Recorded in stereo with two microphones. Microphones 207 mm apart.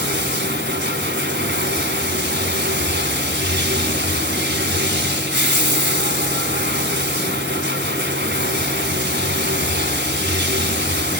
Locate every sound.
0.0 s running water: 55° right (ahead or behind), 1.8 m